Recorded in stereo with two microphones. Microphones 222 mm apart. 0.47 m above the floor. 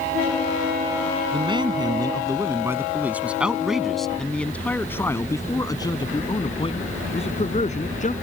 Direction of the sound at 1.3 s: 20° right (ahead or behind).